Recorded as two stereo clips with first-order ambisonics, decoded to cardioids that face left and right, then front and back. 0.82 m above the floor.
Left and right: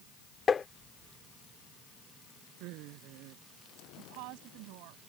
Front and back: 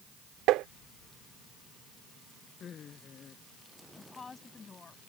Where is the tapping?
155° left.